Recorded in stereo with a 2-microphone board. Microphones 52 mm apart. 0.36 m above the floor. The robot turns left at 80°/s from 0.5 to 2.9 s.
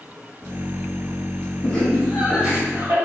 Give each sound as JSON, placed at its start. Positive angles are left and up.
{"t": 1.6, "sound": "laughter", "side_deg": 40, "distance_m": 1.8}